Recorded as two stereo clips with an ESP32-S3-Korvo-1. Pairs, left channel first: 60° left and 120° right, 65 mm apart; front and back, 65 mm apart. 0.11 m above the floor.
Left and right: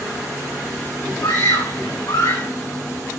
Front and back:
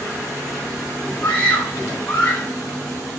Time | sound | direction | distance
1.2 | a scream | 65° left | 6 m